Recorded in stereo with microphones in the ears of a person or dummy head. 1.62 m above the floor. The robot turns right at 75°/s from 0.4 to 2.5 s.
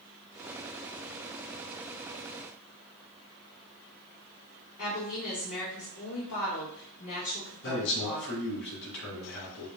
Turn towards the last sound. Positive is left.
turn(degrees=65)  # may be behind; listen again after turning